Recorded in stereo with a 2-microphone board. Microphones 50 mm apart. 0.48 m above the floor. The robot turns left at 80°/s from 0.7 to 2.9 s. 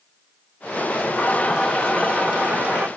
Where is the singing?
55° left, 1.1 m; by 2.9 s 85° right, 1.1 m.